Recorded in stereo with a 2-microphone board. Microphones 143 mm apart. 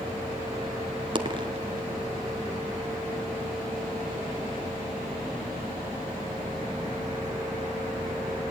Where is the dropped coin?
35° right (ahead or behind), 1.6 m.